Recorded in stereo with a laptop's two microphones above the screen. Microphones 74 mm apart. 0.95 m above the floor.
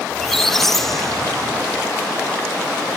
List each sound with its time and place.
0.1 s a squeak: 5° left (ahead or behind)